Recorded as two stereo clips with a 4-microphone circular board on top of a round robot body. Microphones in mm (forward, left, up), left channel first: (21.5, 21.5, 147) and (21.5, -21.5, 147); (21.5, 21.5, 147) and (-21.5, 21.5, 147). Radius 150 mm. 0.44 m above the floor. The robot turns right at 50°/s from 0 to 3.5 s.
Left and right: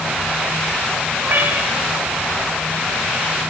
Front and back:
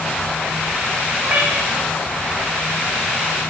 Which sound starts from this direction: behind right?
A cat meowing, at 1.2 s.